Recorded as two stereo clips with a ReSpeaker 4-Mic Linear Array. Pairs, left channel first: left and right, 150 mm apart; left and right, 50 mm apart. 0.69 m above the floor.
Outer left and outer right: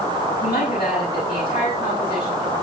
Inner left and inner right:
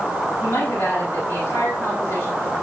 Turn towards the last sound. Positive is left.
turn(degrees=75)  # may be behind; listen again after turning